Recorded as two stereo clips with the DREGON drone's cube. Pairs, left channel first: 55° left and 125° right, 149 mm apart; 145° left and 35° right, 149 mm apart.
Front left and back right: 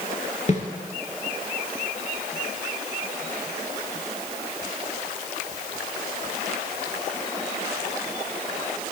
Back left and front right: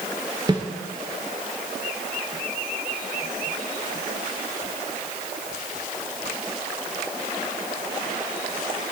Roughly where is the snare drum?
Ahead left.